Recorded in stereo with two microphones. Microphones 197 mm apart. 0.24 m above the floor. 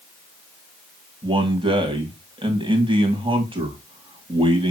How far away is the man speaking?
About 1.8 m.